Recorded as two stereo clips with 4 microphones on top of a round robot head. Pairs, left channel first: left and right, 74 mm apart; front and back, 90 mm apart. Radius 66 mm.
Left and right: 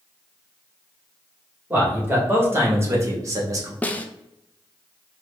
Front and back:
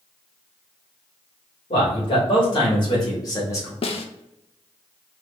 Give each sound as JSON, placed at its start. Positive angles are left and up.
{"t": 1.7, "sound": "a man speaking", "azimuth_deg": -25, "distance_m": 2.0}
{"t": 3.8, "sound": "a snare drum", "azimuth_deg": 20, "distance_m": 0.6}